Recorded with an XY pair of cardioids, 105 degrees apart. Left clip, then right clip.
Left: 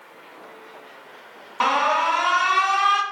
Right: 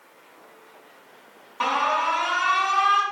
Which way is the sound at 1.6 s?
45° left.